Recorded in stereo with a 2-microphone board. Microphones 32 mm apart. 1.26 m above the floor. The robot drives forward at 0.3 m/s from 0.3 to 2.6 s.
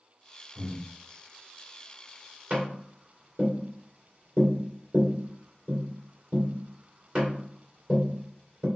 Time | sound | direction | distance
0.6 | breathing | 60° right (ahead or behind) | 1.7 m
2.5 | tapping | 35° right (ahead or behind) | 2 m